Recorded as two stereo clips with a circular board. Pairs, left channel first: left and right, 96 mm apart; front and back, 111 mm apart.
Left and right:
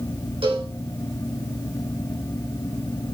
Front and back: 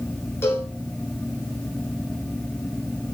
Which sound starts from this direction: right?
A cowbell, at 0.4 s.